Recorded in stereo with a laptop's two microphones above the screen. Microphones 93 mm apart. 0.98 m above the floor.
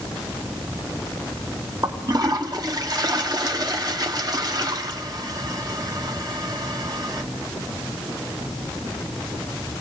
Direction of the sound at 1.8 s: 45° right (ahead or behind).